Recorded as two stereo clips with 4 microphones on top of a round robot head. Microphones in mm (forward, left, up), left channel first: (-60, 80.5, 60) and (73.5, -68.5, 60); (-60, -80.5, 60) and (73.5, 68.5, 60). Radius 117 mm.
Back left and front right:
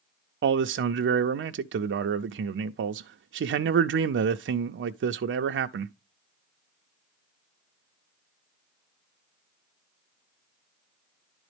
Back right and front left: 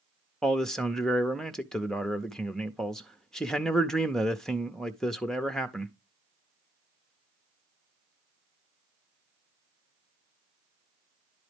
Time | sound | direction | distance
0.4 | a man speaking | 45° right | 0.5 m